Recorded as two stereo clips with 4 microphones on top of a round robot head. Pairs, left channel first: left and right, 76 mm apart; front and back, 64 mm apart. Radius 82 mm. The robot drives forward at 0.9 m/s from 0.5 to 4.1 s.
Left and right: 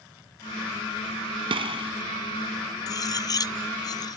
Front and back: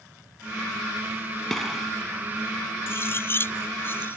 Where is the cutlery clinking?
55° left.